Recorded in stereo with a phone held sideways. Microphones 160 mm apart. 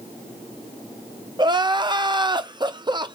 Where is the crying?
25° right (ahead or behind), 0.5 m.